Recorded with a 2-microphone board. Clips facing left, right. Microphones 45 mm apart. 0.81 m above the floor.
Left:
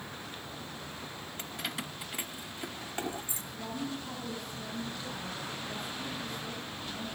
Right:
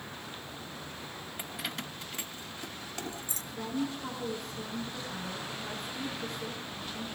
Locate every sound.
1.4 s keys jangling: 15° right (ahead or behind), 0.5 m; by 3.4 s 25° left (ahead or behind), 1.9 m
3.5 s a woman speaking: 60° right (ahead or behind), 9 m